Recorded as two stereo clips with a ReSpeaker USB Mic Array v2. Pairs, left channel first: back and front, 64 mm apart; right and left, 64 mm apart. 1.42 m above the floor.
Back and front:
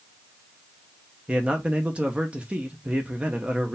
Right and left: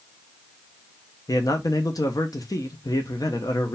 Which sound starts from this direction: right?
A man speaking, at 1.3 s.